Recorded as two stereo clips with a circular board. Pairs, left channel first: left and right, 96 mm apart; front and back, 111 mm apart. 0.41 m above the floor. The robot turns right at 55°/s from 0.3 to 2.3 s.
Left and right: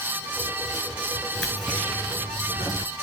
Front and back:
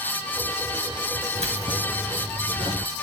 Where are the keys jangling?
165° left, 3.5 m; by 2.9 s 140° right, 3.5 m.